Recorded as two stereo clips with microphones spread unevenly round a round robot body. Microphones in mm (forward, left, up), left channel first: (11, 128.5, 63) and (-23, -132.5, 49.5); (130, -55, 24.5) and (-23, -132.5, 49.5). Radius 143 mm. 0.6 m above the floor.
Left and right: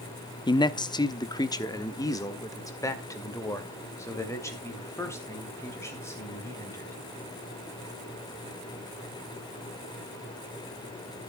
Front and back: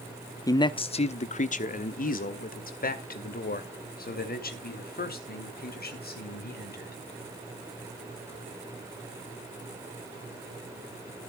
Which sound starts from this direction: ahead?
A man speaking, at 0.5 s.